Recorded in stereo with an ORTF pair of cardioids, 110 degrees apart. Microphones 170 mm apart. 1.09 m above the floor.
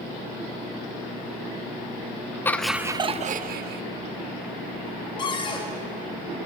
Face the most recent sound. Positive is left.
turn(degrees=30)